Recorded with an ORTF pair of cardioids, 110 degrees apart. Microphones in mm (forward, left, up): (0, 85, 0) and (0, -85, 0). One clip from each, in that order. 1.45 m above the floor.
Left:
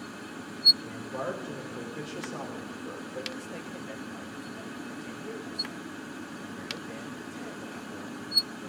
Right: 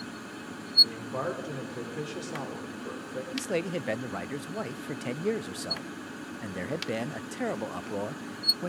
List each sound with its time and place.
0.8 s a man speaking: 15° right, 3.5 m
3.3 s a man speaking: 65° right, 0.6 m